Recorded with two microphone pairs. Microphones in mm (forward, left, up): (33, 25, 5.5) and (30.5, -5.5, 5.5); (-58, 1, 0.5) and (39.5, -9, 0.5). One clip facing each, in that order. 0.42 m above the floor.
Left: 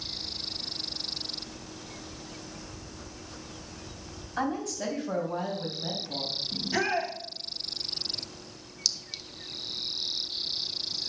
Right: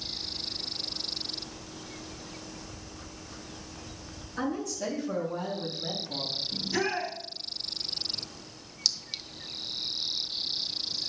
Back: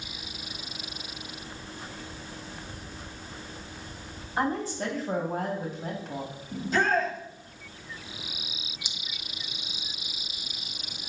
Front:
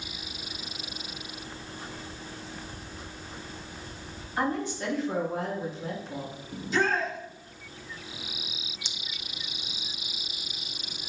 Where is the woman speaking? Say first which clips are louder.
Left 1 dB, back 1 dB; 120° left, 3 m; by 6.4 s 155° left, 3 m.